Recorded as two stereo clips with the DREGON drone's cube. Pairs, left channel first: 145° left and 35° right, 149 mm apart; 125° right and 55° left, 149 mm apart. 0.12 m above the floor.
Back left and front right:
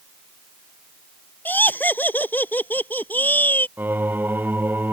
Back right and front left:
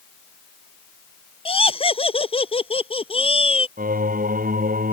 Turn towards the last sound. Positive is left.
turn(degrees=45)